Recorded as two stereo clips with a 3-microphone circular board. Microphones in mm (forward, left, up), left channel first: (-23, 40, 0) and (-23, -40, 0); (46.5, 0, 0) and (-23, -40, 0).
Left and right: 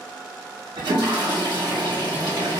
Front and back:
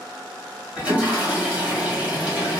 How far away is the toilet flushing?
About 1.3 m.